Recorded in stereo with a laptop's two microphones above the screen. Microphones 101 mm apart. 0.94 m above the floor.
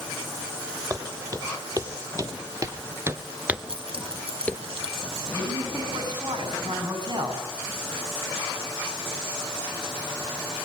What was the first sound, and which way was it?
Footsteps, 35° right (ahead or behind).